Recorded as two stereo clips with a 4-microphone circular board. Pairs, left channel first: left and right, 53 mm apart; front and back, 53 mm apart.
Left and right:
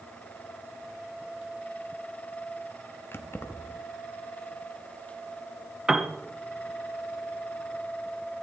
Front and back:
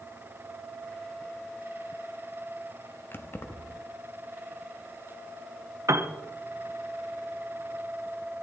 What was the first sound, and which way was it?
Keys jangling, 45° left.